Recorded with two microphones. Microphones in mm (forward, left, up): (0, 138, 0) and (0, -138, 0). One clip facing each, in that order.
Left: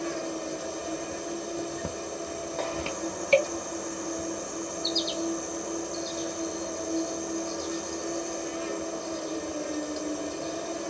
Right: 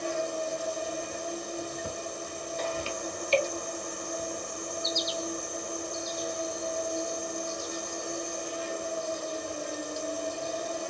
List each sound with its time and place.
0.0 s an insect: 65° left (ahead or behind), 1.1 m